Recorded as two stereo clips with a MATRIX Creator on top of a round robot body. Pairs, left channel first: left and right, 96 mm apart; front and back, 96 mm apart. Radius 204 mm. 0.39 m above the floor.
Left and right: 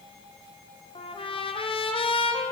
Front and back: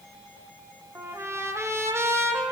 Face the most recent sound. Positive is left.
turn(degrees=115)